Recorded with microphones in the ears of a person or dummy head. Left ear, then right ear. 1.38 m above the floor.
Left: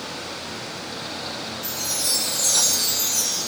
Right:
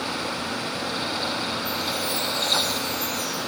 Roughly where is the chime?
Left.